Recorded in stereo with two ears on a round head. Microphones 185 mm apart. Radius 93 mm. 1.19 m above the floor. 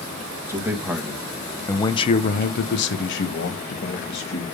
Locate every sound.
0.5 s a man speaking: 10° right (ahead or behind), 2 m; by 4.4 s 50° left (ahead or behind), 2.5 m